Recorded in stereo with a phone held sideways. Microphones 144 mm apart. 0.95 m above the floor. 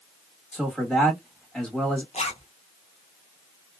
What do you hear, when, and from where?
0.5 s a man speaking: 5° left (ahead or behind), 1.3 m
2.1 s a zipper: 55° left (ahead or behind), 0.8 m